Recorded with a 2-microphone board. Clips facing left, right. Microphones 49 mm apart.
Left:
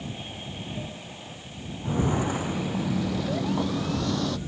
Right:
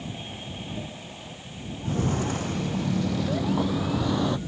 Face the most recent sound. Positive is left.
turn(degrees=-20)  # may be behind; listen again after turning